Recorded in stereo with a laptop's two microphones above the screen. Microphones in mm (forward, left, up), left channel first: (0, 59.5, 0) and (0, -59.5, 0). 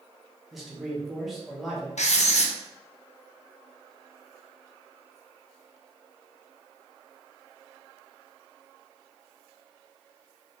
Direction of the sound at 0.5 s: Centre (ahead or behind).